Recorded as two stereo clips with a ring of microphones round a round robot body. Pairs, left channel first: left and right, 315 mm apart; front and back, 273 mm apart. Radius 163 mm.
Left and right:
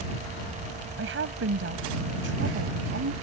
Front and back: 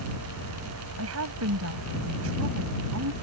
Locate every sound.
1.0 s a woman speaking: 140° right